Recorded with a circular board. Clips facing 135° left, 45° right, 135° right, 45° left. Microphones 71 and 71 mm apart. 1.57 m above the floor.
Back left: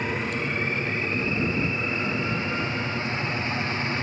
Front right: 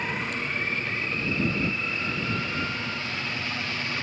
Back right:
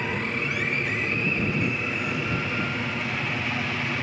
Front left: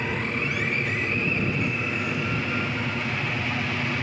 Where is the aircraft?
135° left.